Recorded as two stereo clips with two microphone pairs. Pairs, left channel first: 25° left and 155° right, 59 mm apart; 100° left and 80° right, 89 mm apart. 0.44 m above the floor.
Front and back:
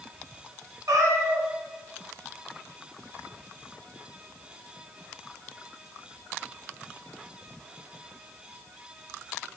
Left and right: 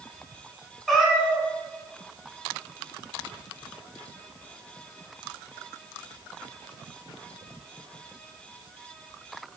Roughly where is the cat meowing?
Behind.